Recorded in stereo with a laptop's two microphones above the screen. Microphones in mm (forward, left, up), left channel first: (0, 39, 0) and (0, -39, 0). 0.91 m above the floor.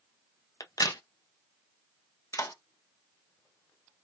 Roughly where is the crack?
Left.